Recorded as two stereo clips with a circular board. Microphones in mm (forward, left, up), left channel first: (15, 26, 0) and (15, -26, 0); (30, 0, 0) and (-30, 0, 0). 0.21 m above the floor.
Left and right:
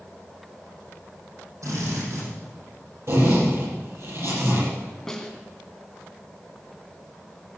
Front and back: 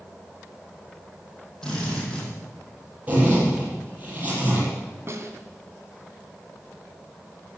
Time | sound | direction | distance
1.6 | a drill | 80° right | 8 m
3.1 | a zipper | 120° right | 7 m
5.1 | a snare drum | 170° left | 2 m